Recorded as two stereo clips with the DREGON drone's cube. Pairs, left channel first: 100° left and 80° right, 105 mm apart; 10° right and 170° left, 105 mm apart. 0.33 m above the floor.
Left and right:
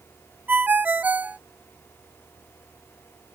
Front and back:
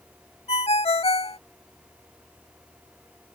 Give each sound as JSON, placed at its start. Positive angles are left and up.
{"t": 0.5, "sound": "a ringtone", "azimuth_deg": -5}